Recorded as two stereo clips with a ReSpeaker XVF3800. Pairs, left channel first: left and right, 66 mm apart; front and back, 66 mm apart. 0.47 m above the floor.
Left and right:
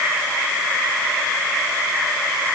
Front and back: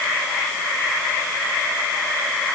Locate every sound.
Only background noise.